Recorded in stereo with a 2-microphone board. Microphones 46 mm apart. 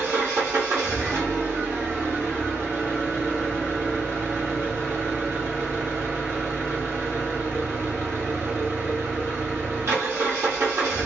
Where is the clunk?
No clunk in this recording.